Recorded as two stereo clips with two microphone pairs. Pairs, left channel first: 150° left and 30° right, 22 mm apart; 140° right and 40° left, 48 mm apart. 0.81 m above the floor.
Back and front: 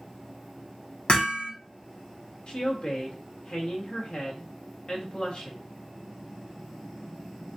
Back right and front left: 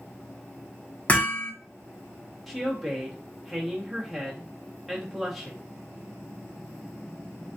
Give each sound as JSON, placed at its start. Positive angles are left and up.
{"t": 1.1, "sound": "hammering", "azimuth_deg": 165, "distance_m": 1.4}
{"t": 2.5, "sound": "a woman speaking", "azimuth_deg": 130, "distance_m": 1.4}